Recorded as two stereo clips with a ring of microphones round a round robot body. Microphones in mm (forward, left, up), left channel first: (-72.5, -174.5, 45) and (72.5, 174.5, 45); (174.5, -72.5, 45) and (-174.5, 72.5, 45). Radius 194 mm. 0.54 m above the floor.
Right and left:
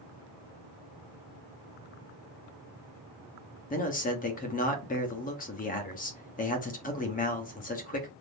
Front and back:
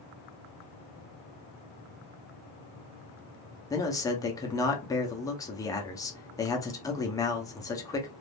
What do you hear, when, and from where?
3.7 s a man speaking: 90° right, 0.8 m